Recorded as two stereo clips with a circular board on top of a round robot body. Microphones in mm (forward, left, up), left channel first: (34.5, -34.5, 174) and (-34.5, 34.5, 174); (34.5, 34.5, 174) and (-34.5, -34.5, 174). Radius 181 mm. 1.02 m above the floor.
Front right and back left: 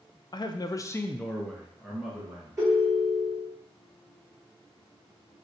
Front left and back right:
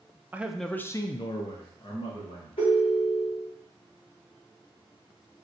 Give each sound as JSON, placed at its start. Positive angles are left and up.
{"t": 0.3, "sound": "a man speaking", "azimuth_deg": -65, "distance_m": 0.5}
{"t": 2.6, "sound": "a ringtone", "azimuth_deg": 75, "distance_m": 1.7}